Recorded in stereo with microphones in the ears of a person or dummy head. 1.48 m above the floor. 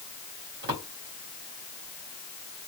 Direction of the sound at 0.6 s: 50° right (ahead or behind).